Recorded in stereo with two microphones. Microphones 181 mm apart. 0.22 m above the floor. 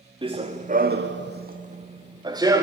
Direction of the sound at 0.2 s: 25° right (ahead or behind).